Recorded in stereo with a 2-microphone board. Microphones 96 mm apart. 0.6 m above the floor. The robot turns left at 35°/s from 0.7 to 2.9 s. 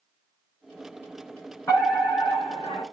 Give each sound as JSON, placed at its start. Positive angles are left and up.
{"t": 1.7, "sound": "a fire alarm", "azimuth_deg": 150, "distance_m": 6.5}